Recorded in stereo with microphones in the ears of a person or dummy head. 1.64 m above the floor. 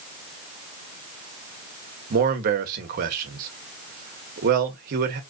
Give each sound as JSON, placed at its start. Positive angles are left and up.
{"t": 2.1, "sound": "a man speaking", "side_deg": -55, "distance_m": 1.0}